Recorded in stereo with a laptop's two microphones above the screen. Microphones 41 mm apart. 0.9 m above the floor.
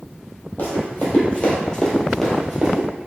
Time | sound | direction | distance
0.6 | running footsteps | 45° left (ahead or behind) | 1.2 m